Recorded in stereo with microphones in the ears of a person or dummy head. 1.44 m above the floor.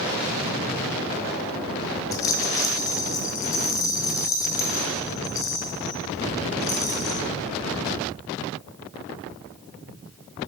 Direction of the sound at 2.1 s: 20° left (ahead or behind).